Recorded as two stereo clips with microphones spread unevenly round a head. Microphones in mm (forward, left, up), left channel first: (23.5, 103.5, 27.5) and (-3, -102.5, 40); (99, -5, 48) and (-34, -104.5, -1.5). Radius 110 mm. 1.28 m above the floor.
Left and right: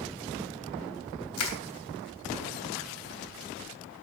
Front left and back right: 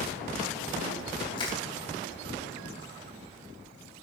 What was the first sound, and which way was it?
Crushing, 100° left.